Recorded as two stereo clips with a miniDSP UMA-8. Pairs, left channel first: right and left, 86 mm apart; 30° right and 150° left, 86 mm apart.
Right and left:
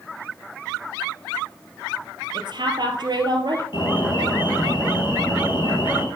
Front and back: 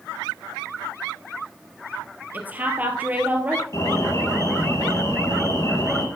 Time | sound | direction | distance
2.3 | a woman speaking | 80° left | 2.5 m
3.7 | an alarm | 75° right | 4.5 m